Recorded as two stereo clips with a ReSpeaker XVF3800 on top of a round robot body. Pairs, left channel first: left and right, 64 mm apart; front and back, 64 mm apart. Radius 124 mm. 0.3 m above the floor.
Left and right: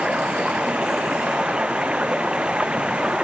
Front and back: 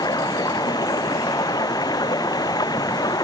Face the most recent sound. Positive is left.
turn(degrees=-15)